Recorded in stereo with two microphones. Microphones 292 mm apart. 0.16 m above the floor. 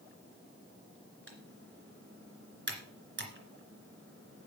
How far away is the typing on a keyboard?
About 2.5 m.